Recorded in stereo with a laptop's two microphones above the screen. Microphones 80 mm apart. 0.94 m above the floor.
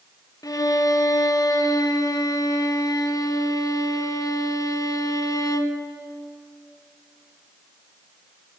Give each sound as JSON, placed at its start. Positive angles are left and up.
{"t": 0.4, "sound": "a violin", "side_deg": 50, "distance_m": 0.7}